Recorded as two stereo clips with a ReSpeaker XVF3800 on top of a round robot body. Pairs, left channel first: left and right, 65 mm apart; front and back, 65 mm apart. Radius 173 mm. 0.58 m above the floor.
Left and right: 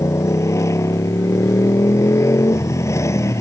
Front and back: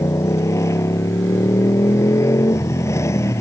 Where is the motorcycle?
50° left.